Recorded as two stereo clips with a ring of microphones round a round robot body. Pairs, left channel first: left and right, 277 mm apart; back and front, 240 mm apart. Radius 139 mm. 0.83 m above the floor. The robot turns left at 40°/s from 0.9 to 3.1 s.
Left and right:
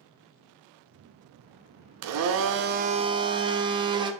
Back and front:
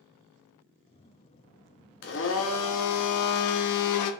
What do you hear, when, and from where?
2.0 s a blender: 120° right, 0.5 m; by 4.1 s 165° right, 0.5 m